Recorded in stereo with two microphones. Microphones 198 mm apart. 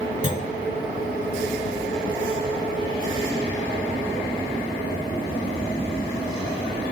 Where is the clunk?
40° right (ahead or behind), 1.4 m.